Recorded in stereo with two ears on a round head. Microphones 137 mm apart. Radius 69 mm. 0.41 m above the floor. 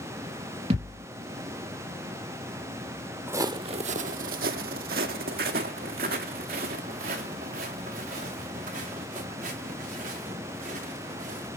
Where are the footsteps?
15° right (ahead or behind), 0.6 m; by 11.5 s 60° right (ahead or behind), 5 m.